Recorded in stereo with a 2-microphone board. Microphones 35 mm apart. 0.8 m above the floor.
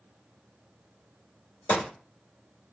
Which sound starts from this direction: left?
A gunshot, at 1.7 s.